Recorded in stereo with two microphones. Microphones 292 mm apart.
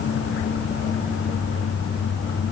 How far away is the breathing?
No breathing in this recording.